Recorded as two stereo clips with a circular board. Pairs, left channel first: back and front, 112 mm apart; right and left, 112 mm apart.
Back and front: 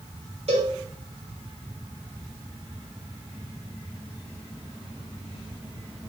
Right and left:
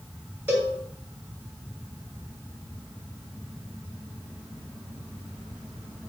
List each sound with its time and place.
0.5 s a cowbell: 20° left, 1.7 m